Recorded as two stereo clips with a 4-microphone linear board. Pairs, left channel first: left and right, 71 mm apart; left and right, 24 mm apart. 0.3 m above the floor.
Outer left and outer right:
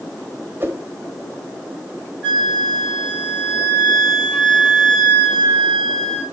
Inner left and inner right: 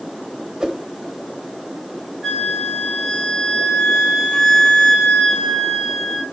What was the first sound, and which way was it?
A whoosh, 30° right (ahead or behind).